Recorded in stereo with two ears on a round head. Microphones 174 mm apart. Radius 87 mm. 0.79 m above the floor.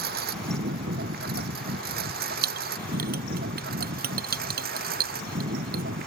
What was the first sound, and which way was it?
A lawn mower, 50° right (ahead or behind).